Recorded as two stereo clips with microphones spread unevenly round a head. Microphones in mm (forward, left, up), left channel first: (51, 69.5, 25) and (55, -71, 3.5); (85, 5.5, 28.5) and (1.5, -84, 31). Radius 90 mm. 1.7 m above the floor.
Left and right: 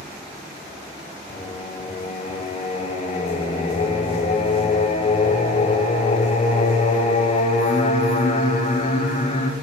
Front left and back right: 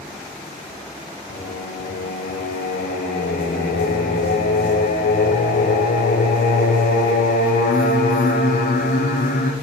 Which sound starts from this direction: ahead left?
Singing, at 1.3 s.